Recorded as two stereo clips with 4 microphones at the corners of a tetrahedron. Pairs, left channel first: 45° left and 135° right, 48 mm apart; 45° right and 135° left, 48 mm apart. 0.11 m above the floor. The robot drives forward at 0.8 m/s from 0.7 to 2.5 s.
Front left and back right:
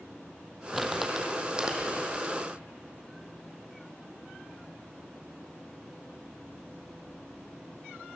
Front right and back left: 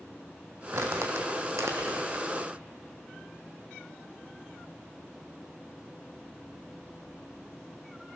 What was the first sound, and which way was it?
Crumpling, 140° left.